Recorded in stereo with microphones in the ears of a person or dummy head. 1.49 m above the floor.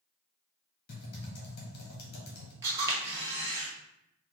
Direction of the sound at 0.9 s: 55° left (ahead or behind).